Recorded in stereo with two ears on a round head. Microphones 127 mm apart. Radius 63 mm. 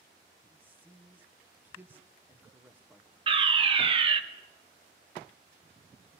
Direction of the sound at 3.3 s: 35° right (ahead or behind).